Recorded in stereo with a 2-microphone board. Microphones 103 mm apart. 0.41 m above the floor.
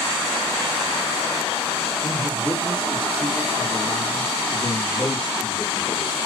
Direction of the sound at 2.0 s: 10° left (ahead or behind).